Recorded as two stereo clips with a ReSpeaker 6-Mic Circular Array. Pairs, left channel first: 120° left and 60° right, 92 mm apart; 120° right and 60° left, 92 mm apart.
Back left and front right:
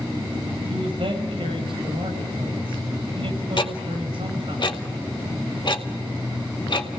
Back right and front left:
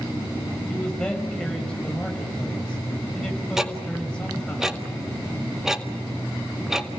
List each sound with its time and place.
0.7 s a man speaking: 40° right, 5 m
3.6 s ticking: 145° left, 1.8 m